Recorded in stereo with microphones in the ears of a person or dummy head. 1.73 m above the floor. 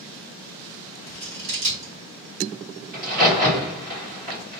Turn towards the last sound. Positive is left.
turn(degrees=-40)  # may be behind; listen again after turning